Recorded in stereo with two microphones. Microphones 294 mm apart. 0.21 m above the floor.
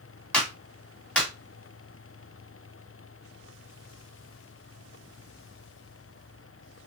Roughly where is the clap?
Centre.